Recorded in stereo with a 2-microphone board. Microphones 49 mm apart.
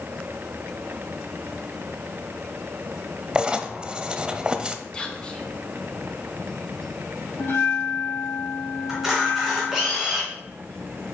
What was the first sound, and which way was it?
Writing, 20° right (ahead or behind).